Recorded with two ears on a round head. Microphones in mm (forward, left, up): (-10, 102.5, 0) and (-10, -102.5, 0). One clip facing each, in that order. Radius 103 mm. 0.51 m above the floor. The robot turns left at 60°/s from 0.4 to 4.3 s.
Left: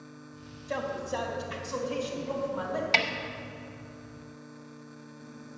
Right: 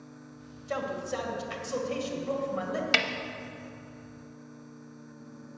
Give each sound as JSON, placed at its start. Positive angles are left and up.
{"t": 0.7, "sound": "a man speaking", "azimuth_deg": -10, "distance_m": 2.0}
{"t": 2.9, "sound": "a snare drum", "side_deg": -15, "distance_m": 0.5}